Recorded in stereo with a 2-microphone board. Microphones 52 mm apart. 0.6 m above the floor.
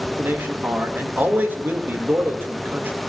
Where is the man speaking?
40° right (ahead or behind), 2 m.